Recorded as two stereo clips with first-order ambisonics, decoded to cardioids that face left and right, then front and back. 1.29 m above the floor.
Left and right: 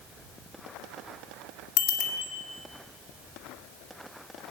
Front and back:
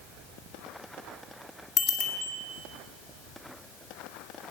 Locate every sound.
1.8 s a bicycle bell: 60° left, 2.5 m